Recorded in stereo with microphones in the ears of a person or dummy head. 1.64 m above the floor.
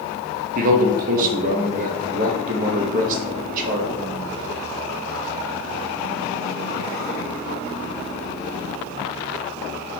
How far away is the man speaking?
About 0.9 m.